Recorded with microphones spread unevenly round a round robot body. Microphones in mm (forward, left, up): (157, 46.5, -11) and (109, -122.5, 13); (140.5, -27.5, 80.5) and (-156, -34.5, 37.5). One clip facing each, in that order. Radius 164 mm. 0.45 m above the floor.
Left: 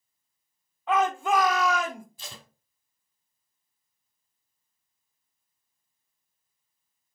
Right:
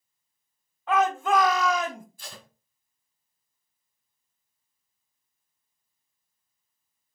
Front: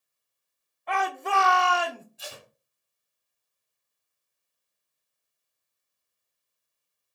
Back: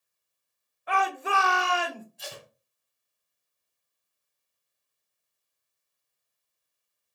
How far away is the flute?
No flute in this recording.